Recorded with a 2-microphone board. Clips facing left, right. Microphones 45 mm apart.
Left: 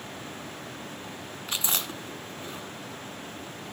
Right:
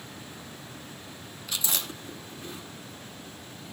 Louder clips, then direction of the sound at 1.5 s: Left 2 dB; 40° left (ahead or behind).